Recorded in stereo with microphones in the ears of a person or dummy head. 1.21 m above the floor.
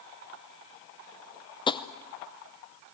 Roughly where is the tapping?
Left.